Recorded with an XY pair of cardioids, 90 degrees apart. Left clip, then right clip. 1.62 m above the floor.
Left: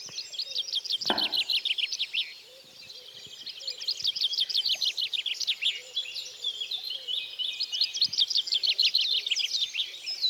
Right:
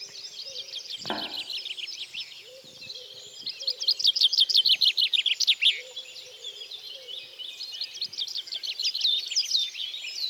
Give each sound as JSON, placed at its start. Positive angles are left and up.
{"t": 1.1, "sound": "tapping", "azimuth_deg": 35, "distance_m": 1.3}